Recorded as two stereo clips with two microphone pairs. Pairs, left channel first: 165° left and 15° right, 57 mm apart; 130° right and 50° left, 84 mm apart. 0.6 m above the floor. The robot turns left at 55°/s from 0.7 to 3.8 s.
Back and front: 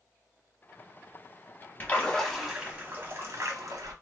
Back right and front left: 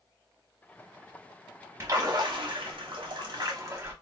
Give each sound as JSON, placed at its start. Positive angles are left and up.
{"t": 1.8, "sound": "a splash", "azimuth_deg": 105, "distance_m": 1.0}